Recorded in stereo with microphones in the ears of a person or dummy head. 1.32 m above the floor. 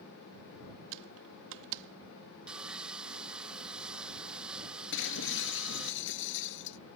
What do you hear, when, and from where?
0.9 s typing on a keyboard: 70° right (ahead or behind)
2.5 s sawing: 5° right (ahead or behind)
4.9 s breaking glass: 75° left (ahead or behind)